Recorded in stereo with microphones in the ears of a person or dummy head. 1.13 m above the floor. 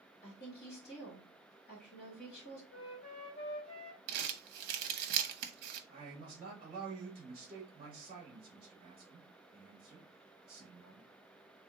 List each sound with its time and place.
0.2 s a woman speaking: 55° left (ahead or behind), 2 m
2.7 s a flute: 55° left (ahead or behind), 2 m
4.1 s crumpling: 55° right (ahead or behind), 0.6 m
5.9 s a man speaking: 20° right (ahead or behind), 1.1 m